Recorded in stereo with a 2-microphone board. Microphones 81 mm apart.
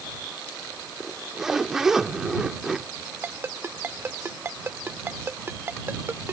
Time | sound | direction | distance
1.0 | a zipper | 5° right (ahead or behind) | ?
3.2 | a ringtone | 30° right (ahead or behind) | ?